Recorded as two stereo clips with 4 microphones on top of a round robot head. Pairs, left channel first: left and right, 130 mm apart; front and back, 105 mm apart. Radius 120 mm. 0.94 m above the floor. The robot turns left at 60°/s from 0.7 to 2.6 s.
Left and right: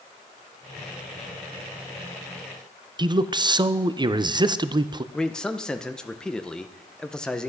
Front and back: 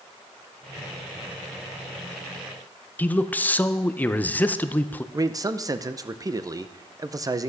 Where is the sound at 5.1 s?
170° left, 0.8 m.